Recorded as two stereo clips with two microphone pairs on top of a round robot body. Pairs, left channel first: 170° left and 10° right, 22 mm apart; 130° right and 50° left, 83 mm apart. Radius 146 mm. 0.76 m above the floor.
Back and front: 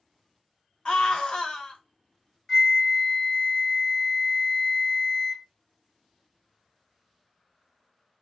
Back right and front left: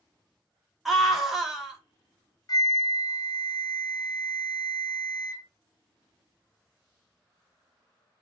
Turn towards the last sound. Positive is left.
turn(degrees=-135)